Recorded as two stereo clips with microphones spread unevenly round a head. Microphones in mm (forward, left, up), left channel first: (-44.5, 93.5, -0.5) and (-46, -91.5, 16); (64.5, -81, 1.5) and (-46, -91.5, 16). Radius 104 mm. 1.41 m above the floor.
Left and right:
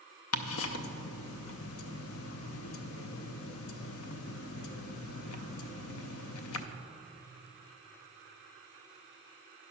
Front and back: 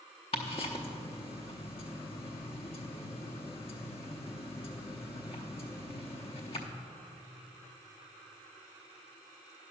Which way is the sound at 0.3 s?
70° left.